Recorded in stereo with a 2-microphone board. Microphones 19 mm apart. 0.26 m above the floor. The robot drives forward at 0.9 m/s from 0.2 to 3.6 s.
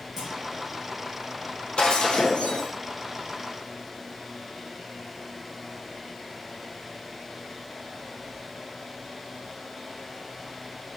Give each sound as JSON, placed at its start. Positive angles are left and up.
{"t": 0.2, "sound": "a clunk", "side_deg": -5, "distance_m": 4.5}
{"t": 1.8, "sound": "breaking glass", "side_deg": 70, "distance_m": 2.5}